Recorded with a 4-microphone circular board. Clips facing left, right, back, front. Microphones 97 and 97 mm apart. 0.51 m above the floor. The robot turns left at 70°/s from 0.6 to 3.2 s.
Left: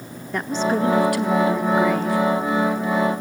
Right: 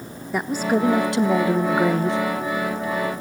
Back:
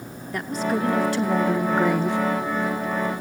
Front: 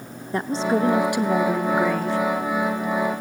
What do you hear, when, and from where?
0.3 s a woman speaking: 20° right, 0.8 m; by 2.2 s 130° right, 0.8 m